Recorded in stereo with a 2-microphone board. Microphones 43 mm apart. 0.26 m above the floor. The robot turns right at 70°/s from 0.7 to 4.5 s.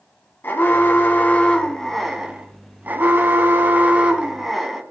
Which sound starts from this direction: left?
An alarm, at 0.4 s.